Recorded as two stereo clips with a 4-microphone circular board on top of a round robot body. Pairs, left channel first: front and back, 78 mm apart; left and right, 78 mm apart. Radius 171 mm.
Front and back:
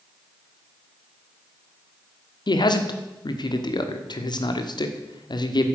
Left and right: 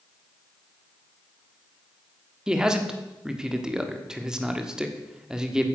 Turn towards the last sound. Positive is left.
turn(degrees=-10)